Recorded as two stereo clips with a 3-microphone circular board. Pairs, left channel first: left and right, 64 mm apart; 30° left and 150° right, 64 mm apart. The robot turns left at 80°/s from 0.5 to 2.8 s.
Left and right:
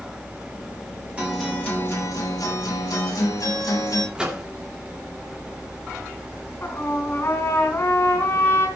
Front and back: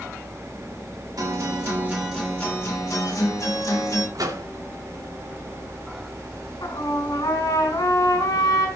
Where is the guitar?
160° right, 8.5 m; by 4.0 s 70° left, 8.5 m.